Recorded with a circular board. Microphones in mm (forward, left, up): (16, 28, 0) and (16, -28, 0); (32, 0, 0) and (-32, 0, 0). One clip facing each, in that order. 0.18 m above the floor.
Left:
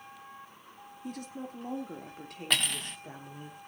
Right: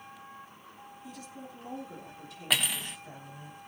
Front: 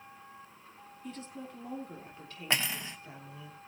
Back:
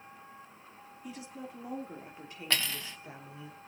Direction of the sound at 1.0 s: 105° left.